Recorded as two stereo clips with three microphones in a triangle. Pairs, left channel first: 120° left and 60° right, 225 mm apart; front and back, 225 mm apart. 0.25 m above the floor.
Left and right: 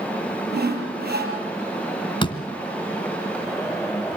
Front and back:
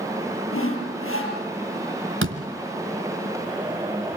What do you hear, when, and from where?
0.5 s sawing: 15° right, 5.5 m
2.2 s a door slam: 175° right, 2 m